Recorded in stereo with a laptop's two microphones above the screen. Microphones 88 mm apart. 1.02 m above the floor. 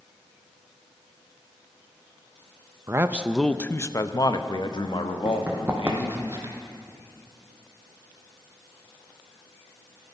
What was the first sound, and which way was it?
A man speaking, 30° right (ahead or behind).